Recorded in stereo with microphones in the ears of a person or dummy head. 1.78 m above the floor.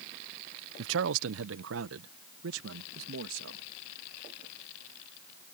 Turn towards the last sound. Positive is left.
turn(degrees=-75)  # may be behind; listen again after turning